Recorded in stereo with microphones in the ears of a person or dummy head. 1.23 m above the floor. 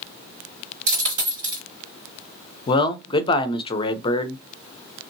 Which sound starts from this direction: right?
A dropped coin, at 0.9 s.